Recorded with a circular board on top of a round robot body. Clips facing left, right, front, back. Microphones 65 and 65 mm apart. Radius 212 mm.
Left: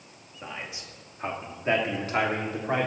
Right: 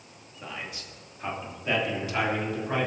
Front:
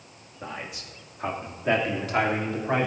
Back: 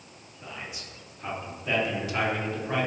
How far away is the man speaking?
About 2.5 m.